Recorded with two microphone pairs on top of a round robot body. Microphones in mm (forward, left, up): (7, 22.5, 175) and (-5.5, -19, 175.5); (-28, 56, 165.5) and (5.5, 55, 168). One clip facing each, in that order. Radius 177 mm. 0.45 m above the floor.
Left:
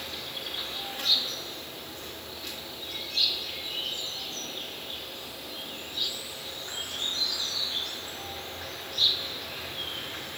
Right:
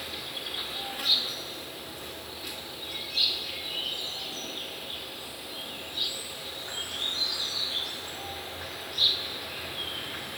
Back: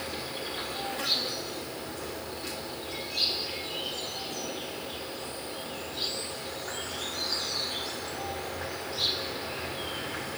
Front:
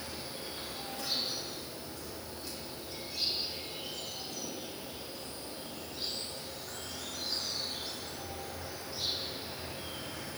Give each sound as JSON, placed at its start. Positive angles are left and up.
{"t": 0.0, "sound": "an insect", "azimuth_deg": 170, "distance_m": 1.9}